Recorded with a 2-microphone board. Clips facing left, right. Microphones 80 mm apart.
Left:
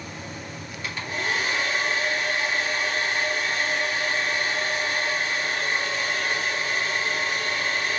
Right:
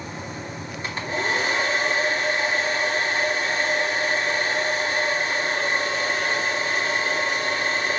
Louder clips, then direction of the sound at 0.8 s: Right 3 dB; 35° right (ahead or behind).